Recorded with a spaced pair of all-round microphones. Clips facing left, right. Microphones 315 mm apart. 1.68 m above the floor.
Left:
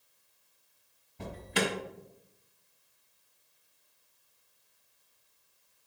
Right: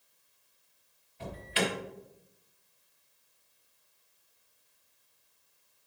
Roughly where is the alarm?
Left.